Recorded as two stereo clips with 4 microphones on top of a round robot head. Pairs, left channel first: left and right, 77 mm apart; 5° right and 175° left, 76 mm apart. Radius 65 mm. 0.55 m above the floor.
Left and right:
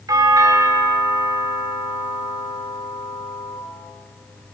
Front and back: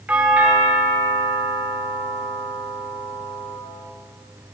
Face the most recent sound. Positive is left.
turn(degrees=-115)